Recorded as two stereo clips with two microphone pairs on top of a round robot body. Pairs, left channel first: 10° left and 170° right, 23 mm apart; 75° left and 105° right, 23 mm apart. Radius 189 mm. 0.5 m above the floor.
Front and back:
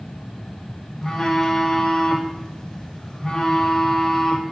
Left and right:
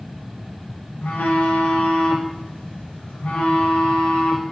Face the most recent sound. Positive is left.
turn(degrees=85)